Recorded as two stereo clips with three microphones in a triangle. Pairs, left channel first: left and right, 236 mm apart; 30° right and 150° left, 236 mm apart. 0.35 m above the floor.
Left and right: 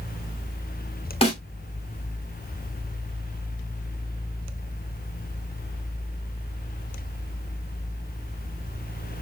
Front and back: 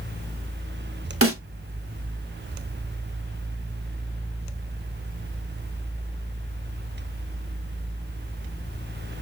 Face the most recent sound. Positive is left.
turn(degrees=150)